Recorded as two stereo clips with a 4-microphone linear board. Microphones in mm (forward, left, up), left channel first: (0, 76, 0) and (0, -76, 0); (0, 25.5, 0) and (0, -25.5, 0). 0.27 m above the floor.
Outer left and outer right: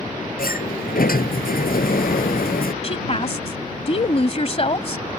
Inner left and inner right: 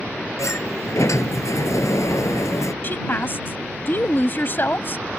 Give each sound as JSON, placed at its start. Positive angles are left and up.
{"t": 0.4, "sound": "a sliding door", "side_deg": 75}
{"t": 2.8, "sound": "a woman speaking", "side_deg": 45}